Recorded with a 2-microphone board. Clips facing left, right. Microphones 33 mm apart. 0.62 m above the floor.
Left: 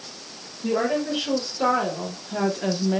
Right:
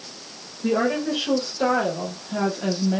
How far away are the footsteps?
I don't hear footsteps.